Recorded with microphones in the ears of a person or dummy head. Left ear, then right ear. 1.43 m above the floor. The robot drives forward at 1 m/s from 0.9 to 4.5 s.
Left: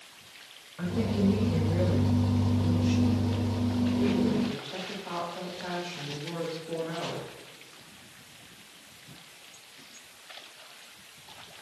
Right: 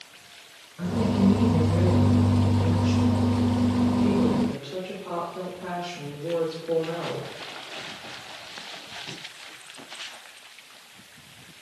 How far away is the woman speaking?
About 1.2 m.